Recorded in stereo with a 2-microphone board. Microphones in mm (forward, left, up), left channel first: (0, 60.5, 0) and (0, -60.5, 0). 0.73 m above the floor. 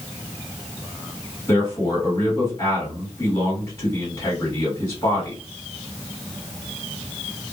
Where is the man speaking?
25° left (ahead or behind), 1.6 m.